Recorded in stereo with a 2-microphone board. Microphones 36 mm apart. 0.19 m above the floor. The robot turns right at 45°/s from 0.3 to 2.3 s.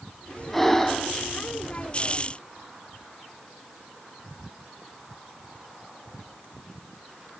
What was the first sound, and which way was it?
Breathing, 5° left (ahead or behind).